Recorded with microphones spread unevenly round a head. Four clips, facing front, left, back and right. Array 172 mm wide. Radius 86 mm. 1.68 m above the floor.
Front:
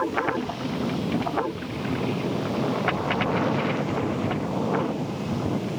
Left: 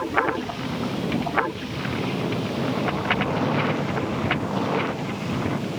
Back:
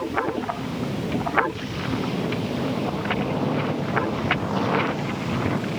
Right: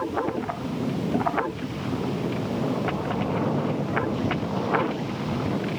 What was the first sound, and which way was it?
Only background noise.